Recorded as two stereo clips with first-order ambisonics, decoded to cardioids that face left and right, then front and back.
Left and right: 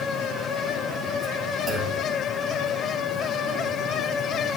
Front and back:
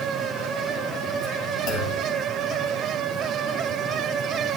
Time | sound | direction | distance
1.7 | a clunk | straight ahead | 1.9 m